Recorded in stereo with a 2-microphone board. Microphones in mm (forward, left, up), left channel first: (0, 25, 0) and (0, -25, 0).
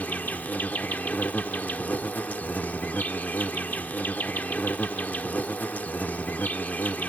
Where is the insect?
35° left (ahead or behind).